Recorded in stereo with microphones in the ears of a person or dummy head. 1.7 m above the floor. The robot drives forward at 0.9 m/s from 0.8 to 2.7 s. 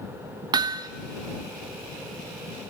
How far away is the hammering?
About 0.6 m.